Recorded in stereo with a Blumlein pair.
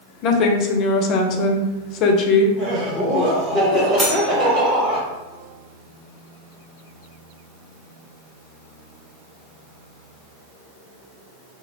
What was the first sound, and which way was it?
A woman speaking, 35° left.